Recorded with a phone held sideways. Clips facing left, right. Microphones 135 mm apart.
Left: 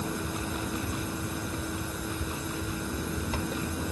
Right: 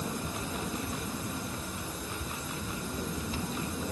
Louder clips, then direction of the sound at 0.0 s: Left 3 dB; 85° left.